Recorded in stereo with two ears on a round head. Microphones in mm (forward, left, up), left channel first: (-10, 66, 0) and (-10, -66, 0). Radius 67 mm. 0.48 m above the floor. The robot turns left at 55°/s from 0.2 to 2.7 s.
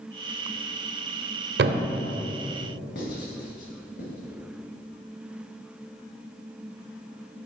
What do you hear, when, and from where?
1.6 s a thud: 80° right, 0.6 m; by 1.9 s 70° right (ahead or behind), 0.6 m
3.0 s writing: 75° left (ahead or behind), 2 m